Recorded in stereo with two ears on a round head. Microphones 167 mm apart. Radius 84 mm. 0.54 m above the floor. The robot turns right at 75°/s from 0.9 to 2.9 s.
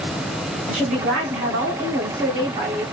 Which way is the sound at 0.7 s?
140° right.